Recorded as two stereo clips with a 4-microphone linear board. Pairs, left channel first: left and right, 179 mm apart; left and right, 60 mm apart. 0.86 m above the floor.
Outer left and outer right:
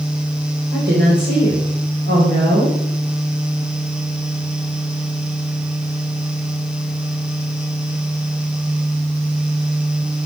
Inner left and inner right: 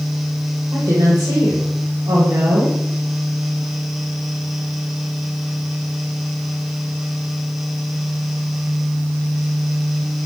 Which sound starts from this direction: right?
A woman speaking, at 0.7 s.